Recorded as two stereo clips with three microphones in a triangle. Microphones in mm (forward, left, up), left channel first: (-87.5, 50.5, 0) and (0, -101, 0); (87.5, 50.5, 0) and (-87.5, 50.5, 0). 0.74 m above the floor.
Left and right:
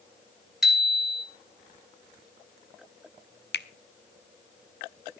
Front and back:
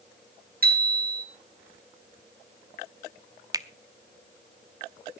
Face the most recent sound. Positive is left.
turn(degrees=110)